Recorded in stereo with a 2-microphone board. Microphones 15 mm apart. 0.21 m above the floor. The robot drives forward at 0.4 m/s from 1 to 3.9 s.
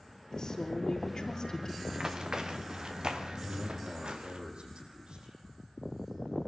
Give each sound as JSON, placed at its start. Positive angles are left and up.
{"t": 0.3, "sound": "a woman speaking", "side_deg": 35, "distance_m": 5.0}
{"t": 1.9, "sound": "running footsteps", "side_deg": -40, "distance_m": 3.0}
{"t": 3.4, "sound": "a man speaking", "side_deg": -65, "distance_m": 8.0}